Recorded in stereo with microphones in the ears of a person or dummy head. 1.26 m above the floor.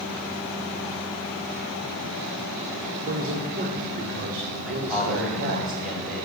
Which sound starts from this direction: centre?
A man speaking, at 4.6 s.